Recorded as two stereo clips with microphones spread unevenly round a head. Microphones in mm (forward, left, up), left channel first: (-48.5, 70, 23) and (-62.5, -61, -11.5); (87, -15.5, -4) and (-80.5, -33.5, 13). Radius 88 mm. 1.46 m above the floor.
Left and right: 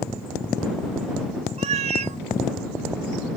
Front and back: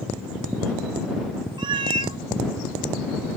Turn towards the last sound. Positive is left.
turn(degrees=-130)